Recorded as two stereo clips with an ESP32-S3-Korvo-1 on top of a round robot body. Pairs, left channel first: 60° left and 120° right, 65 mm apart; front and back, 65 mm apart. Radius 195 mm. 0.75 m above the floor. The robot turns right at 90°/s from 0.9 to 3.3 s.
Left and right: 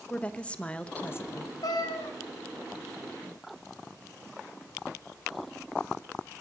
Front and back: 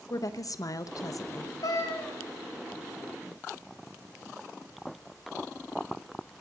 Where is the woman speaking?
10° right, 1.0 m; by 1.5 s 50° left, 1.0 m.